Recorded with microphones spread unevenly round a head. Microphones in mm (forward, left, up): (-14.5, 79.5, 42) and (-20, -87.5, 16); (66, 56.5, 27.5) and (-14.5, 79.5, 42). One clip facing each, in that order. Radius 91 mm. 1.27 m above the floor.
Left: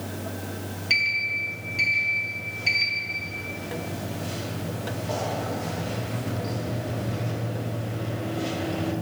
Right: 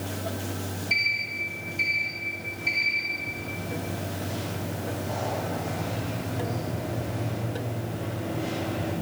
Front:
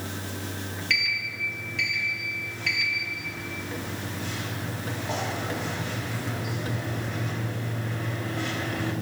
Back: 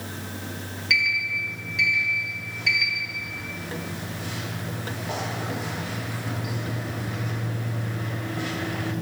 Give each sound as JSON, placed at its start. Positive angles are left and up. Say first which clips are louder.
{"t": 0.9, "sound": "a sliding door", "louder": "left 1 dB, back 5 dB", "azimuth_deg": 85, "distance_m": 5.0}